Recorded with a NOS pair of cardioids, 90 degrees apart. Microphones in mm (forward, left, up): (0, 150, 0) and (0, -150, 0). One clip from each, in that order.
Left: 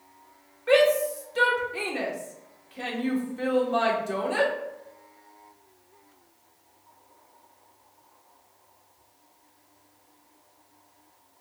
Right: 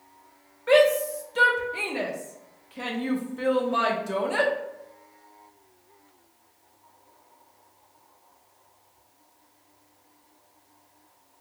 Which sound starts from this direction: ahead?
A shout, at 0.7 s.